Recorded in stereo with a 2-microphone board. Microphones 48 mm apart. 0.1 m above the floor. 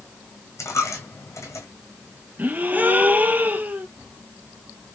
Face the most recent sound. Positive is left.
turn(degrees=-35)  # may be behind; listen again after turning